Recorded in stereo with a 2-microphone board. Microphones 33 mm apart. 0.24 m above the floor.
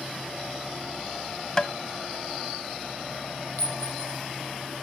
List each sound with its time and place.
1.6 s tapping: 25° left (ahead or behind), 0.7 m
3.6 s a clink: 60° left (ahead or behind), 7 m